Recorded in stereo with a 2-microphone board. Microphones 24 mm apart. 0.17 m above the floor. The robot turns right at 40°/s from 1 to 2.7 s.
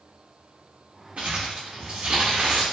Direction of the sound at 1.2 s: 110° right.